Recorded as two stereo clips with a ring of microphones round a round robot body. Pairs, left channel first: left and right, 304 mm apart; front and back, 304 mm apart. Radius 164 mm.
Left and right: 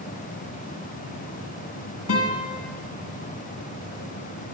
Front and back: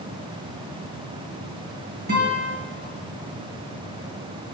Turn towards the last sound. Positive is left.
turn(degrees=125)